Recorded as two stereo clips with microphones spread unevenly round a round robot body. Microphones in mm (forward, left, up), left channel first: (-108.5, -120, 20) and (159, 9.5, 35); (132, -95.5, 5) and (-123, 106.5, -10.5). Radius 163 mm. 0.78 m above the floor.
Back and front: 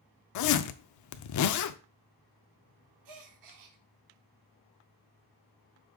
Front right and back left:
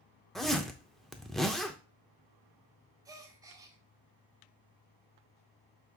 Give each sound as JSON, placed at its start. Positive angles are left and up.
{"t": 0.3, "sound": "a zipper", "azimuth_deg": -125, "distance_m": 0.6}
{"t": 3.0, "sound": "a gasp", "azimuth_deg": 60, "distance_m": 1.0}